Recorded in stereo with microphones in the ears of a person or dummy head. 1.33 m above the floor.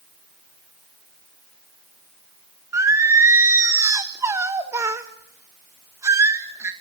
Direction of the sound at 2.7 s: 15° right (ahead or behind).